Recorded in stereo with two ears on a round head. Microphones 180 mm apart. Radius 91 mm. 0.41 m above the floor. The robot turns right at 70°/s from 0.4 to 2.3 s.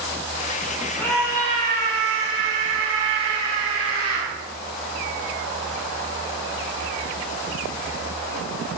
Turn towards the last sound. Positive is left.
turn(degrees=-100)